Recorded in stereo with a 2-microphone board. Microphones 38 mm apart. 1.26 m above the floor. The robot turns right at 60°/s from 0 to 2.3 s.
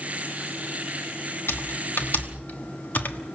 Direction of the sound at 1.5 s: 70° left (ahead or behind).